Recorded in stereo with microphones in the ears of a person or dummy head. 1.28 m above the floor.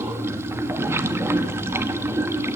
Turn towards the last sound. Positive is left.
turn(degrees=-15)  # may be behind; listen again after turning